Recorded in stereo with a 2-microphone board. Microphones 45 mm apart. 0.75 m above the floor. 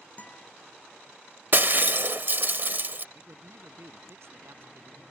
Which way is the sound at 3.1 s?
65° right (ahead or behind).